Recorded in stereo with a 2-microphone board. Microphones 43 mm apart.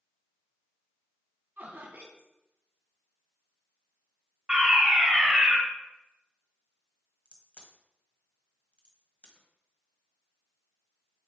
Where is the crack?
30° left (ahead or behind), 1.7 m.